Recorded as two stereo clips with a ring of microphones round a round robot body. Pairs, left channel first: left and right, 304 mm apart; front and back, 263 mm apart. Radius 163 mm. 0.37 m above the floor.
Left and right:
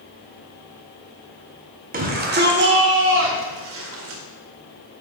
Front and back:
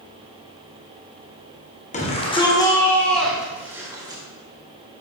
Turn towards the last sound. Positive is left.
turn(degrees=-110)